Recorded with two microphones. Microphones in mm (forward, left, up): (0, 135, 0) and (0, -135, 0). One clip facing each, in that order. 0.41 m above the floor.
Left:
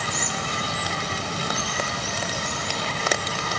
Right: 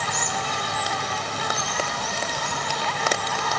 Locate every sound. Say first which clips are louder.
0.0 s an insect: even; 30° left (ahead or behind), 2 m